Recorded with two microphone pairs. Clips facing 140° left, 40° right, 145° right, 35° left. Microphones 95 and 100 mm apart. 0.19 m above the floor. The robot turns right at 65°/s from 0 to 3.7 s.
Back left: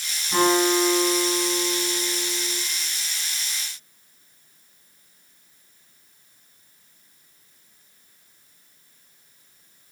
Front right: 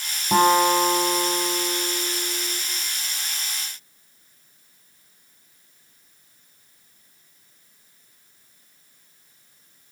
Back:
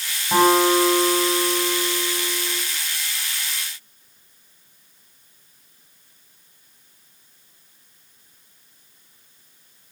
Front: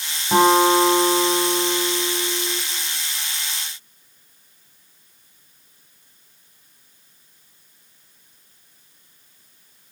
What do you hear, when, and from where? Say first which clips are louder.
0.3 s a guitar: front right 3 dB, front 1 dB; 45° right, 3.5 m; by 2.6 s 105° left, 3.5 m